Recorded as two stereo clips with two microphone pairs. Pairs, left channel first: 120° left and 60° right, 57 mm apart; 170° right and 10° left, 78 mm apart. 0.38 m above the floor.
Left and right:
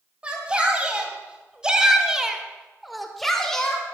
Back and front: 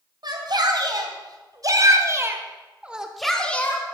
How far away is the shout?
About 3.5 m.